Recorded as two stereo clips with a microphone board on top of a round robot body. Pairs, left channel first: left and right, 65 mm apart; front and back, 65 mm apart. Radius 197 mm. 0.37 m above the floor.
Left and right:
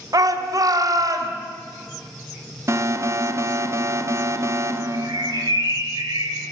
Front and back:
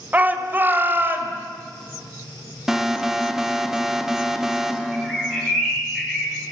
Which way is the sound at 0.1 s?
115° right.